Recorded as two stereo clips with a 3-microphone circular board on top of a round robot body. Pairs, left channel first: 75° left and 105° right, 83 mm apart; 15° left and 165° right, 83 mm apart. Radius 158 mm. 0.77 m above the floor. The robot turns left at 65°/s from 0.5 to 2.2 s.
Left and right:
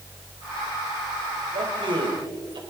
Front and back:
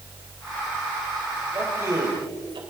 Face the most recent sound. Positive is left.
turn(degrees=-135)